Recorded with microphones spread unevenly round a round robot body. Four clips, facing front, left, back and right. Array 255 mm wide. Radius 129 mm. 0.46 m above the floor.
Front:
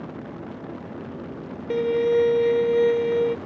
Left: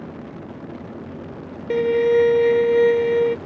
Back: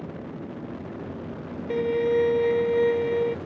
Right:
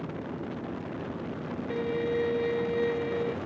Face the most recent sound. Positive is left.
turn(degrees=55)